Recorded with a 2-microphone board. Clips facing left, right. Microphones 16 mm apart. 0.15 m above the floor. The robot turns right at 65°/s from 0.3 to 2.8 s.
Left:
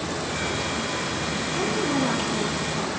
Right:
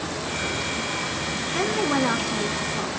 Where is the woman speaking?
105° right, 1.5 m; by 2.9 s 20° right, 1.5 m.